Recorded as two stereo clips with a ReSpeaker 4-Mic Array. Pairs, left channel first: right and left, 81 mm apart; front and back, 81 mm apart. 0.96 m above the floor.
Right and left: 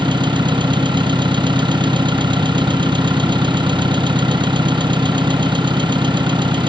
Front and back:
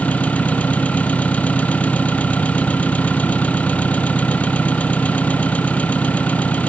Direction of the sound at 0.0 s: 75° left.